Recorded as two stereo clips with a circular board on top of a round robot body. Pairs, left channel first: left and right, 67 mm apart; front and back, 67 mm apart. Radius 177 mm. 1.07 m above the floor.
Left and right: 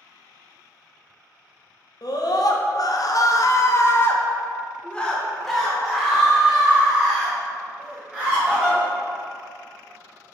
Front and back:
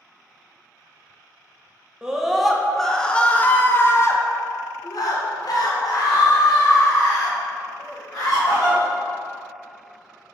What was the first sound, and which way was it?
A scream, 100° left.